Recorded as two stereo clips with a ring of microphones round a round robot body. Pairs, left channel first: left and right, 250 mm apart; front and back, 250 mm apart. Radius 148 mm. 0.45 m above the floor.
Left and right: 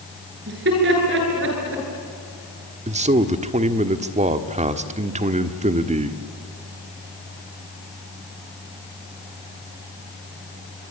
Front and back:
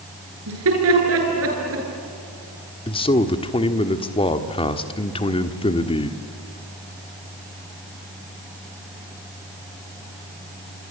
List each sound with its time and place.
0.5 s laughter: 145° right, 9.5 m; by 1.9 s 135° right, 10 m
2.9 s a man speaking: 50° right, 1.5 m